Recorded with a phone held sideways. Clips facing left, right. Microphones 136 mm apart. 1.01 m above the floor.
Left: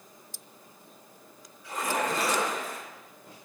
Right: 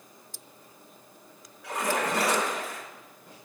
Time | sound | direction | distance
1.6 | a splash | 75° right (ahead or behind) | 5.5 m